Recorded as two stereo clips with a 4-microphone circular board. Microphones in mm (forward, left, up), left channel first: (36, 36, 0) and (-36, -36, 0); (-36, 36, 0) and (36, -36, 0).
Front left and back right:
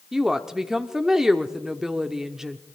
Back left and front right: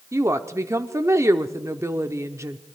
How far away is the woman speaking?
About 0.8 m.